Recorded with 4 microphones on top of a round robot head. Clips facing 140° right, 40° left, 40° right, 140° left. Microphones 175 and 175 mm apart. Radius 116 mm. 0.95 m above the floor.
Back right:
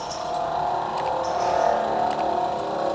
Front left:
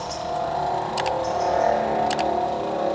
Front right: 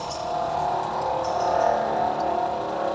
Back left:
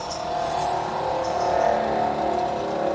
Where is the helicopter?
75° left; by 3.0 s 100° left.